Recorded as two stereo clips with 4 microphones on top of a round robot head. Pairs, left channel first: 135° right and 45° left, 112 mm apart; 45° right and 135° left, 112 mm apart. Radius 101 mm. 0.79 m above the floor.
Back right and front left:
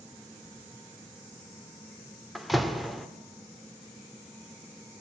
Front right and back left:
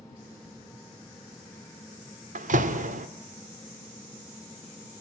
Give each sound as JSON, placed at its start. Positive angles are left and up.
{"t": 2.4, "sound": "a door slam", "azimuth_deg": 135, "distance_m": 2.0}